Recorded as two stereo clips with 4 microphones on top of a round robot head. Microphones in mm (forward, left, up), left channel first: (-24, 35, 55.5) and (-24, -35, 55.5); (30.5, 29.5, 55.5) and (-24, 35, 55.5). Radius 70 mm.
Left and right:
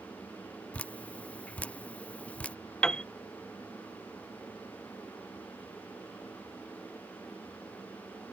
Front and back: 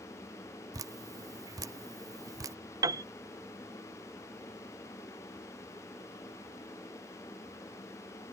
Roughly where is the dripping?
Behind.